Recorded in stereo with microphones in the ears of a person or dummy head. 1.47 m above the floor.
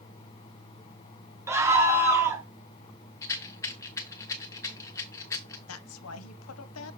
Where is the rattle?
15° left (ahead or behind), 0.8 m.